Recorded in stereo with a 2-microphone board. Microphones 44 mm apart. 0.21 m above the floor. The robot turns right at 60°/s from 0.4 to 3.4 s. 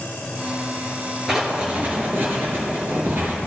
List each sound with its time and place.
1.3 s writing: 170° right, 4 m; by 3.3 s 45° right, 4 m